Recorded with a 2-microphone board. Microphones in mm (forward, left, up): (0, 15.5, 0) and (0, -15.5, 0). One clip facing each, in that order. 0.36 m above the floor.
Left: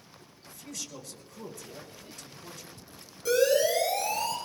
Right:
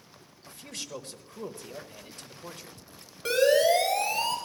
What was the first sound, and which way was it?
A man speaking, 40° right (ahead or behind).